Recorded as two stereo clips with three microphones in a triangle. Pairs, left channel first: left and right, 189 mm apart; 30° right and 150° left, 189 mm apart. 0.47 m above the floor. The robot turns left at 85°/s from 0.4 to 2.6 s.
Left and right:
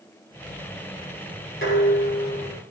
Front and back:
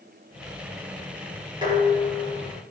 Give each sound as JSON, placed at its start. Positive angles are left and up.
{"t": 1.6, "sound": "dishes clattering", "azimuth_deg": 85, "distance_m": 7.0}